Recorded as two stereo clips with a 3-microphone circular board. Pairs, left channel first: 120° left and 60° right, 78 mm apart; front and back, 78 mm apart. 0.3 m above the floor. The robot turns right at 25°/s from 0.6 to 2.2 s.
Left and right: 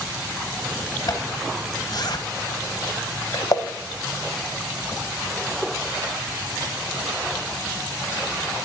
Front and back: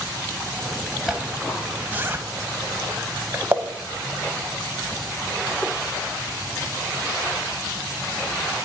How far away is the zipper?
About 0.9 m.